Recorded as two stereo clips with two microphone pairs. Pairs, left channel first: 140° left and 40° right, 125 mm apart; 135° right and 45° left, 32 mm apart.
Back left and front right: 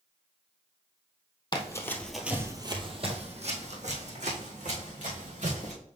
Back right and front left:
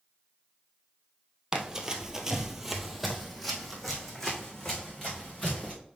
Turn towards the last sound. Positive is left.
turn(degrees=-50)